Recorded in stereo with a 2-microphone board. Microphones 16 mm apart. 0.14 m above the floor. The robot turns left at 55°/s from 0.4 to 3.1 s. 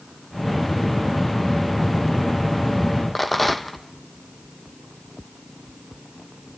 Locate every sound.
3.1 s a rattle: 10° left (ahead or behind), 1.1 m